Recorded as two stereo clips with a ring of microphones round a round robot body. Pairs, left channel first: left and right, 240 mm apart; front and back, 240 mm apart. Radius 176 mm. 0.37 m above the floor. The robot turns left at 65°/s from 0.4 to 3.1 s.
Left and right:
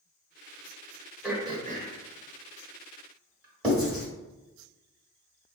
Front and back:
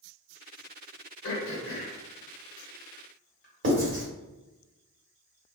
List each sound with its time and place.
1.2 s throat clearing: straight ahead, 1.0 m; by 3.7 s 125° right, 1.0 m
3.6 s writing: 175° left, 1.5 m